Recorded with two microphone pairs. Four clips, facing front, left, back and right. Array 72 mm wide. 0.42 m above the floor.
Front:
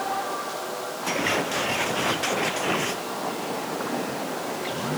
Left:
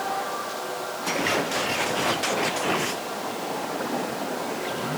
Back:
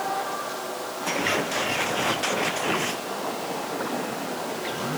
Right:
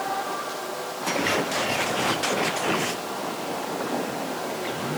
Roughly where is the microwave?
No microwave in this recording.